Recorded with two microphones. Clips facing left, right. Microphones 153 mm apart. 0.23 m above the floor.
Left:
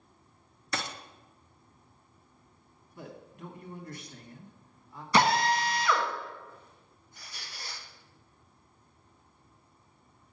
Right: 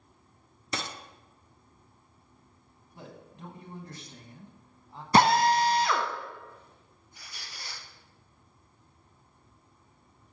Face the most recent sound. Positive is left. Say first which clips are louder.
# left 1 dB
turn(degrees=-10)  # may be behind; listen again after turning